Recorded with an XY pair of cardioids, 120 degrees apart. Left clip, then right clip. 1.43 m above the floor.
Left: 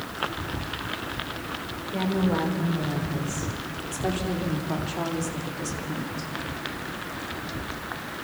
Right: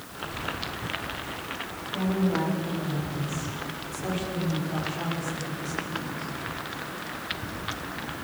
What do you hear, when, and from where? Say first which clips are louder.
1.9 s a woman speaking: left 1 dB; 50° left, 6.5 m; by 6.3 s 65° left, 3 m